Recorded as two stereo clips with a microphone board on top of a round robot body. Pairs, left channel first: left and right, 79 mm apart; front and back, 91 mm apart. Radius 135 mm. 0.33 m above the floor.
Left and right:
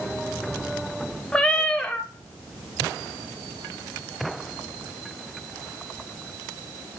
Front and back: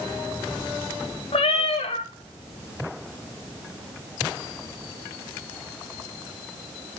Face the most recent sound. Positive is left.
turn(degrees=10)